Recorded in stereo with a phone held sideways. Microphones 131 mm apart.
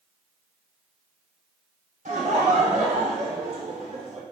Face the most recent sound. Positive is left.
turn(degrees=-75)  # may be behind; listen again after turning